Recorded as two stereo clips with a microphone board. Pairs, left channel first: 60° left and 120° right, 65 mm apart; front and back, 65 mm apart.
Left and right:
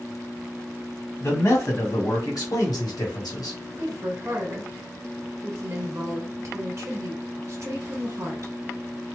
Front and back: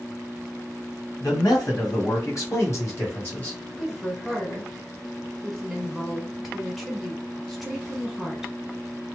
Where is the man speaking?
15° left, 1.6 m; by 3.6 s 65° left, 1.6 m.